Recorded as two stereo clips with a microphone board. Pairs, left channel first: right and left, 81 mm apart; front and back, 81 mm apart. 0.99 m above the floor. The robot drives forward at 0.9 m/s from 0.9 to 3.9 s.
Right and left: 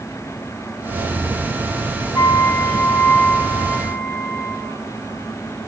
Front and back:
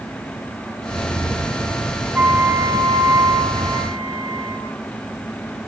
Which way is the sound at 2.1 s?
120° right.